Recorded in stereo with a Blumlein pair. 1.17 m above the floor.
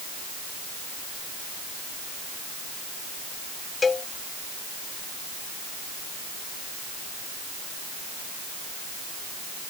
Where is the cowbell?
15° left.